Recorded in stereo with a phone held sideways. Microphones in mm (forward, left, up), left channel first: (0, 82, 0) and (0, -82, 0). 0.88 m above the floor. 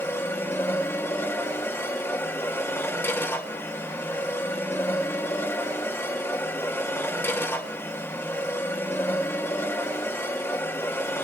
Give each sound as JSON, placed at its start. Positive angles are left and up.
{"t": 0.0, "sound": "a machine running", "side_deg": 15, "distance_m": 1.7}